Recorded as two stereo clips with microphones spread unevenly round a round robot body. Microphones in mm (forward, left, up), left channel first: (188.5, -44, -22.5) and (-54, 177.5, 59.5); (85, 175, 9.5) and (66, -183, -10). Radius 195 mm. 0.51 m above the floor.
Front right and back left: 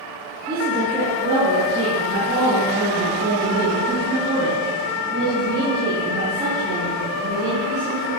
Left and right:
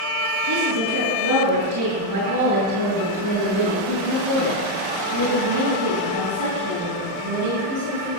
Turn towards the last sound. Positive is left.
turn(degrees=-140)